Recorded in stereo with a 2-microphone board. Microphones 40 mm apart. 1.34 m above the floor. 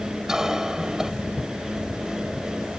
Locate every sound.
0.3 s a cough: 15° right (ahead or behind)